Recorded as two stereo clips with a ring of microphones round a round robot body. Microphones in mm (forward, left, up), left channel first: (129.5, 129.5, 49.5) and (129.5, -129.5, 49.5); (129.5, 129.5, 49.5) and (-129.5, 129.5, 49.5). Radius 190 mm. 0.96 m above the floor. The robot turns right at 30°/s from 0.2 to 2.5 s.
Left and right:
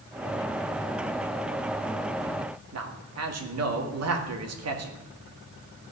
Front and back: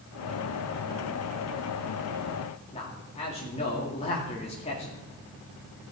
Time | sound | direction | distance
2.7 | a man speaking | 70° right | 2 m